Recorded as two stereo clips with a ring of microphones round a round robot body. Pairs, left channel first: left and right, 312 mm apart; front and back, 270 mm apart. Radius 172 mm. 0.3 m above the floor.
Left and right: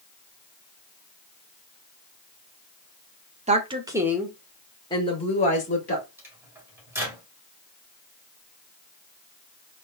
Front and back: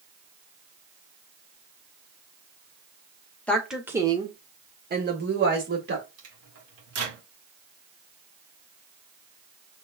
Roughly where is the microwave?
Behind.